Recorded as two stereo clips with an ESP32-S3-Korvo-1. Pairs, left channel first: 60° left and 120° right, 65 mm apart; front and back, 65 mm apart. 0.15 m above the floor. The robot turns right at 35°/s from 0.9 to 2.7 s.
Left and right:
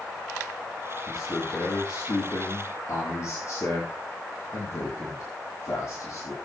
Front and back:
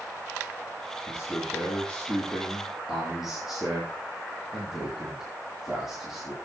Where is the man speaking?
40° left, 4.5 m; by 6.3 s 95° left, 4.5 m.